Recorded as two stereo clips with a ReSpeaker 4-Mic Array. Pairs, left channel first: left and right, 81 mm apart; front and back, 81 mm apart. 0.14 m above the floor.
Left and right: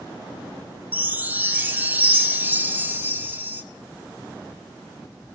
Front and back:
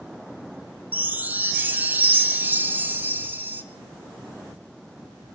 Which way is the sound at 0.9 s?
135° right.